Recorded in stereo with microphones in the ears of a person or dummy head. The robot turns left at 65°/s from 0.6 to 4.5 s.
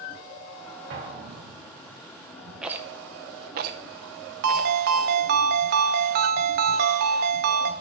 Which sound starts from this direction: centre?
A rattle, at 2.6 s.